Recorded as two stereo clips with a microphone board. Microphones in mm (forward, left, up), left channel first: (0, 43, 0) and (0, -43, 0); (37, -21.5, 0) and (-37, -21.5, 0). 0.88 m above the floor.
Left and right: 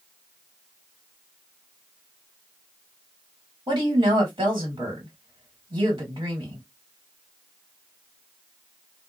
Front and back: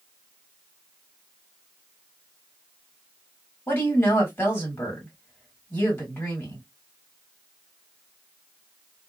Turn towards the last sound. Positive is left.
turn(degrees=-65)